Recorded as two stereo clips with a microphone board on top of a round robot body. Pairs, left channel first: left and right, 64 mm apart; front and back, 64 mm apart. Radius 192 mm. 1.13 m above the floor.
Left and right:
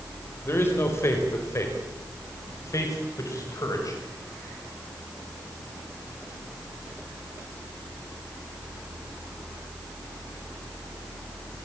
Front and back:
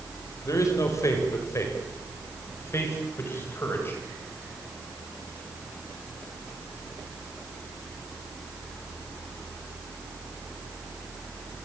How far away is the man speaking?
About 4.5 m.